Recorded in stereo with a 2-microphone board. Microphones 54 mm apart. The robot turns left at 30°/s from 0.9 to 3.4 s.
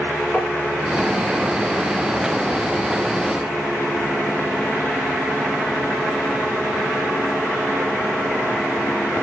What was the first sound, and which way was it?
Tapping, 15° left (ahead or behind).